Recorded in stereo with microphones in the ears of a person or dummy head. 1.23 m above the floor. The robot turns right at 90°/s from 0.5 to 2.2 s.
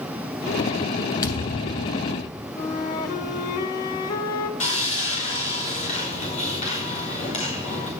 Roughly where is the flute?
Left.